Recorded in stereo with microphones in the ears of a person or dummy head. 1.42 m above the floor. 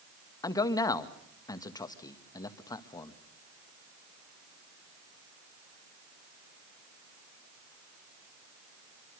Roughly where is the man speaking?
Centre.